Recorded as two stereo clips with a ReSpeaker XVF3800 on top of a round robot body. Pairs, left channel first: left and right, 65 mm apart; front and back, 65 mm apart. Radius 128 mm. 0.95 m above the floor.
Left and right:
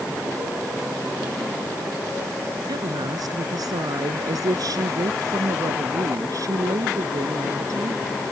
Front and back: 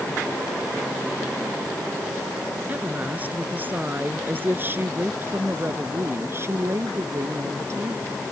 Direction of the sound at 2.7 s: 115° right.